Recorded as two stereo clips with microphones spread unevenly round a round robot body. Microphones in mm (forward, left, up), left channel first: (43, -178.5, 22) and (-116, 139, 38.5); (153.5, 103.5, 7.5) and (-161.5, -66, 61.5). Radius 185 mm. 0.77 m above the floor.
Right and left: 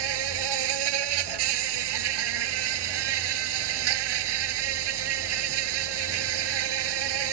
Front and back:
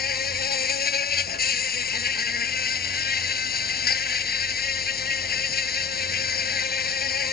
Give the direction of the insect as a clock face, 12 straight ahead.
9 o'clock.